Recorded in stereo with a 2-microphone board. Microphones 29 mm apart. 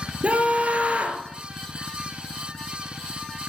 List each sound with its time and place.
0.2 s a scream: 50° right (ahead or behind), 3 m